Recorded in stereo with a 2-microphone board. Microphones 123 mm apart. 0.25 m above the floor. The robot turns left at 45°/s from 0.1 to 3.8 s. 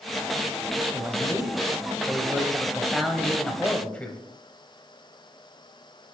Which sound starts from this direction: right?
A man speaking, at 0.9 s.